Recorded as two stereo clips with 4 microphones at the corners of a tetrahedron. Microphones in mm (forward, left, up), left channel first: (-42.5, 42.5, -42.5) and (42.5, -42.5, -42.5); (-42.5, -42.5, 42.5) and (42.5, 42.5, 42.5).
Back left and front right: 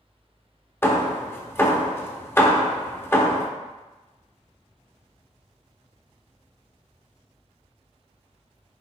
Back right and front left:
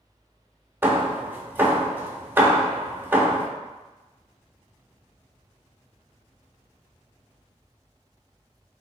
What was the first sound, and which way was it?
Hammering, 90° left.